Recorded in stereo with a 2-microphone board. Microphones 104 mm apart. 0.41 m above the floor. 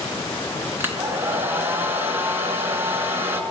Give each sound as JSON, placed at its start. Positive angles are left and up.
{"t": 0.8, "sound": "a hair dryer", "side_deg": -20, "distance_m": 3.5}